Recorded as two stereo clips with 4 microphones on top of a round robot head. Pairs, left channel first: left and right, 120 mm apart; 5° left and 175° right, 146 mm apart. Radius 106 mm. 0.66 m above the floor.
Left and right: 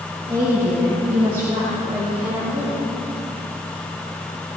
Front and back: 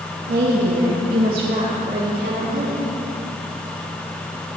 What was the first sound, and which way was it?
A woman speaking, 160° right.